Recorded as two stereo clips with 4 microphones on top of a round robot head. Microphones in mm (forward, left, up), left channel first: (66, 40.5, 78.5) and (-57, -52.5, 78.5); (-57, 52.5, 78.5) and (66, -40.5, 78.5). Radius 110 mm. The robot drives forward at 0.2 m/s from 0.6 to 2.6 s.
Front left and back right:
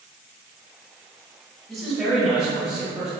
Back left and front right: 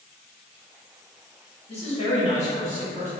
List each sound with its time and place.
1.7 s a man speaking: 125° left, 1.3 m; by 3.1 s 135° left, 1.3 m